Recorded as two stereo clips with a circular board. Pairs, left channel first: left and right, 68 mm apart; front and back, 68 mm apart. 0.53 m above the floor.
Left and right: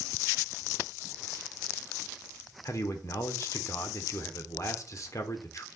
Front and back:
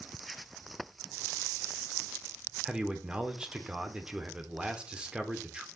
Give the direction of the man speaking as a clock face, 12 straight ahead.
8 o'clock.